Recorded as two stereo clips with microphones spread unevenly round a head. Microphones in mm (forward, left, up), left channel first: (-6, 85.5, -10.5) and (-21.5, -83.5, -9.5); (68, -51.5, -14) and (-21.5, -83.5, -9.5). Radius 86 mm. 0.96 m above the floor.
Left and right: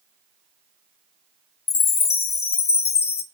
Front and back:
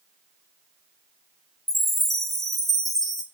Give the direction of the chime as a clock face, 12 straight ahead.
8 o'clock.